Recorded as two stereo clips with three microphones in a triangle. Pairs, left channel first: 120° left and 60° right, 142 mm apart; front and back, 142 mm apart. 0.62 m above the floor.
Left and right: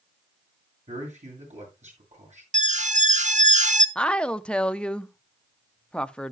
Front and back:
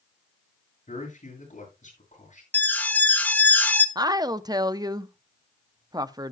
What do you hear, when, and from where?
0.9 s a man speaking: 30° right, 8 m
2.5 s an alarm: 80° right, 0.9 m
4.0 s a woman speaking: 165° right, 0.6 m